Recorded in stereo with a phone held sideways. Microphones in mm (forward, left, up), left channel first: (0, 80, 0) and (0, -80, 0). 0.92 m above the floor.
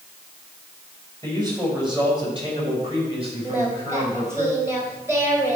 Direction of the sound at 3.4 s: 15° right (ahead or behind).